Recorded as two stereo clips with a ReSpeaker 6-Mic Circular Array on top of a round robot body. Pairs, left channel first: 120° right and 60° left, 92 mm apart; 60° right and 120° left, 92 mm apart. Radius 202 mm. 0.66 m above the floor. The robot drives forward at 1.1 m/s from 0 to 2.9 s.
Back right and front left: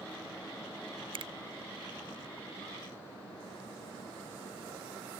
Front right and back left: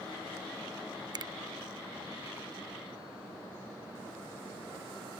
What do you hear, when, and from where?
1.1 s a finger snap: 80° left; by 1.3 s 90° left